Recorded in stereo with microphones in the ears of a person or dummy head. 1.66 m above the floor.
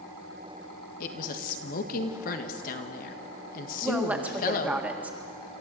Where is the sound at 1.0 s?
55° left (ahead or behind), 1.7 m.